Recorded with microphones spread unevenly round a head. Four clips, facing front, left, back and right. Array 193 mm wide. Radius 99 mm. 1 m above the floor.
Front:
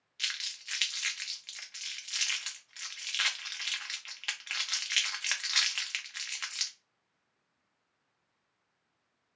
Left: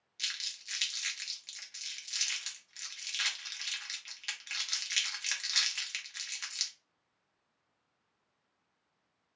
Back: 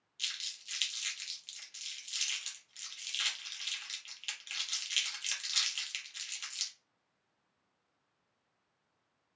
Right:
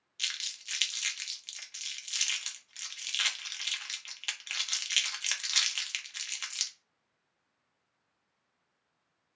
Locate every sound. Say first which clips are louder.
0.2 s crumpling: right 2 dB, front 7 dB; 30° right, 0.9 m